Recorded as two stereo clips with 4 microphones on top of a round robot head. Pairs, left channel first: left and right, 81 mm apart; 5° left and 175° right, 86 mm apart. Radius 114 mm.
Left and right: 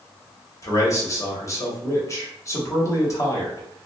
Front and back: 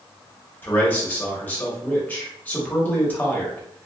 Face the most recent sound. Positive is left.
turn(degrees=65)